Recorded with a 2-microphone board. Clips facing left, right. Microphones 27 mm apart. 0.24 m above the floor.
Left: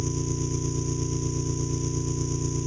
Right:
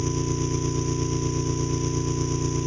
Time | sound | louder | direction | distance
0.0 | an engine running | right 3 dB | 25° right (ahead or behind) | ?